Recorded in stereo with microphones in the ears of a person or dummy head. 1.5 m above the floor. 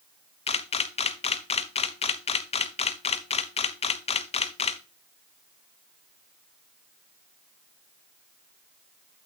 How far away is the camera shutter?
About 0.6 m.